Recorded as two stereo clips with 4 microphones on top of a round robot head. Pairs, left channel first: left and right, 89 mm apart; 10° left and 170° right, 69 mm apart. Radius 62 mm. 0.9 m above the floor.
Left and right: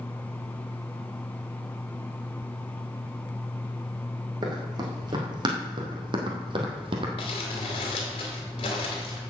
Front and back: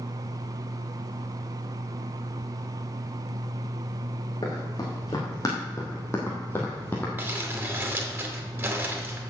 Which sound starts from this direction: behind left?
Crumpling, at 7.2 s.